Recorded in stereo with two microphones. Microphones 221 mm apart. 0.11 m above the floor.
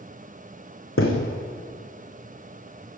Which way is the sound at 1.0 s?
80° left.